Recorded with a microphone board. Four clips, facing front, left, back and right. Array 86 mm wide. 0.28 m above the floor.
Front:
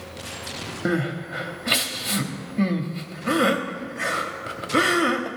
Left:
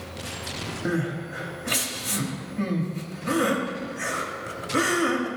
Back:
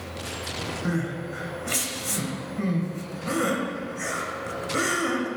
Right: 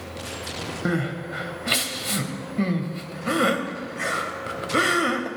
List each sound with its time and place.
0.8 s crying: 40° right, 0.7 m